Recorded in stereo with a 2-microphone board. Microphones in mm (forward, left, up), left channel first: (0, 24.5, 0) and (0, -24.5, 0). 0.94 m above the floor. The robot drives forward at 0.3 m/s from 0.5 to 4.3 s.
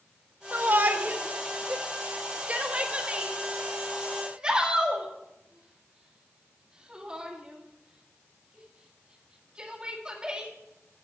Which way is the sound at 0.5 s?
40° right (ahead or behind).